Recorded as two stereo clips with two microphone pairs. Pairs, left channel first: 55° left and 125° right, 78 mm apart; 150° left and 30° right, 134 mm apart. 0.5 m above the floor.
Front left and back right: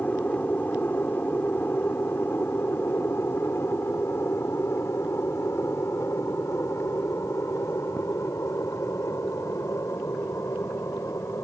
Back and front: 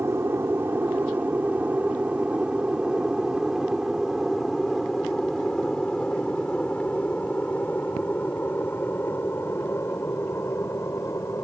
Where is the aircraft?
20° left; by 11.4 s 90° left.